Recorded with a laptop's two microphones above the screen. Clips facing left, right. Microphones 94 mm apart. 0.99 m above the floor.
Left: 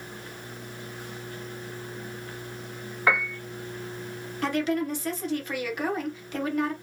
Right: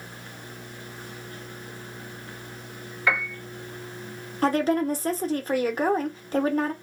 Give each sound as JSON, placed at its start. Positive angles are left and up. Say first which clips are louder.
{"t": 3.1, "sound": "a piano", "louder": "left 1 dB", "side_deg": 40, "distance_m": 1.4}
{"t": 4.4, "sound": "a woman speaking", "louder": "right 4 dB", "side_deg": -35, "distance_m": 0.7}